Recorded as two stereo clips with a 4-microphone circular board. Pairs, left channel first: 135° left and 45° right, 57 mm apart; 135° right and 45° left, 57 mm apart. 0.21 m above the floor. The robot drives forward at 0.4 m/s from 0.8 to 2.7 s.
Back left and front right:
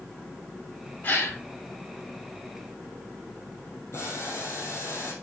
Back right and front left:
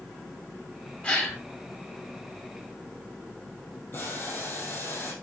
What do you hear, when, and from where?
1.0 s a gasp: 175° left, 1.8 m
3.9 s boiling: 175° left, 3.5 m